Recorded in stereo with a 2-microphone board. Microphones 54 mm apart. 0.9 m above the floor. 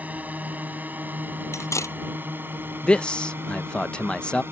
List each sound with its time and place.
0.0 s a drone: 30° right (ahead or behind); by 4.5 s 45° right (ahead or behind)
1.5 s cutlery clinking: 60° left (ahead or behind)
2.8 s a man speaking: 15° left (ahead or behind)